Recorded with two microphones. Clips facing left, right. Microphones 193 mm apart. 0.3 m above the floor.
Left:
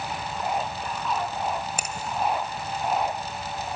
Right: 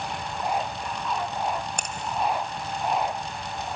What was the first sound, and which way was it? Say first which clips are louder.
A finger snap: left 1 dB; 5° left (ahead or behind).